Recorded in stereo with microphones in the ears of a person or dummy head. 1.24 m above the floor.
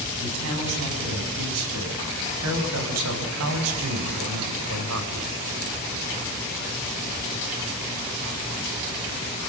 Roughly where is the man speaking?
Right.